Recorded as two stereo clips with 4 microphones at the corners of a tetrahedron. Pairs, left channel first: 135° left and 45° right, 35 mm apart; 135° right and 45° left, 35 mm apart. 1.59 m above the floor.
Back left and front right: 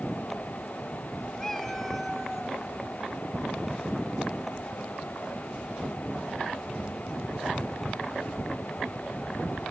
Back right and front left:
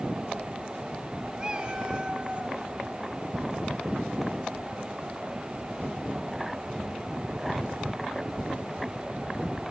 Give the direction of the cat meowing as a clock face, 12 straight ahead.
9 o'clock.